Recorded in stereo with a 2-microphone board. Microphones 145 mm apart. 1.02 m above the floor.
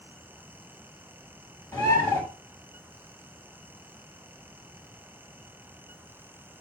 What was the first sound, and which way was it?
A bird, 25° left (ahead or behind).